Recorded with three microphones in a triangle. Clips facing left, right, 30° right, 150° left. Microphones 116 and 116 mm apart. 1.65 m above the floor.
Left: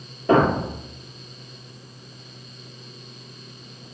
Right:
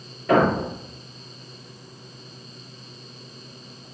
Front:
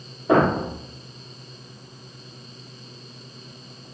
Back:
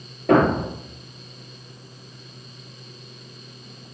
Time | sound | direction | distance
0.3 | a thud | 155° left | 5.5 m